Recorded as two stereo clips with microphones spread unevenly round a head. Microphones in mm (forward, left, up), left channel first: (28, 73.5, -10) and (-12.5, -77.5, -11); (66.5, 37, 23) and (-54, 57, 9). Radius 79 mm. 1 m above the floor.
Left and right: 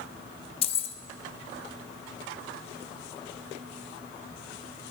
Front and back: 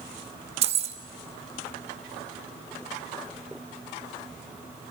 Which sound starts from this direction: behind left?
Keys jangling, at 0.6 s.